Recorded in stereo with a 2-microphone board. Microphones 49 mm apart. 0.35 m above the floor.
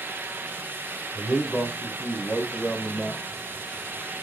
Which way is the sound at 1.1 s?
25° left (ahead or behind).